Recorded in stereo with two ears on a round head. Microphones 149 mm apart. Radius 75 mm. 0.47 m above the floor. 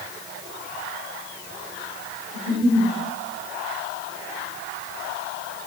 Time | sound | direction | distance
2.3 | a giggle | 30° right (ahead or behind) | 4.5 m